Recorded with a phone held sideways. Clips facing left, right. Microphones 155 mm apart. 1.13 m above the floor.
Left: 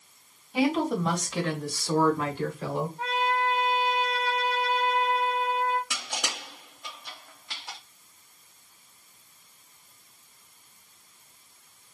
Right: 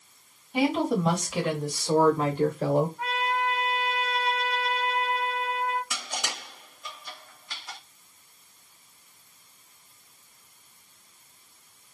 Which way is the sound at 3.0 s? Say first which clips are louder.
Left 1 dB; 35° left (ahead or behind).